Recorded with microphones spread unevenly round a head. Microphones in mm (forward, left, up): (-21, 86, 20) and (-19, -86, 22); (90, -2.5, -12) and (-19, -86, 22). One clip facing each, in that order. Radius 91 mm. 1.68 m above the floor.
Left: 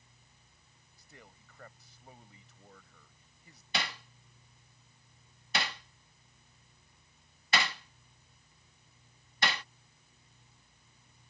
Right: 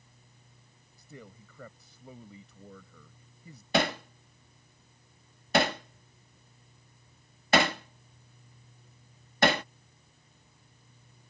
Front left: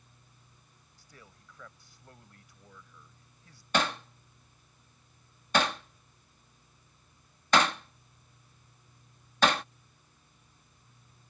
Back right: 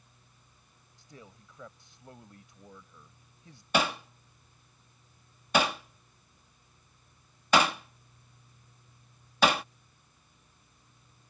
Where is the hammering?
85° right.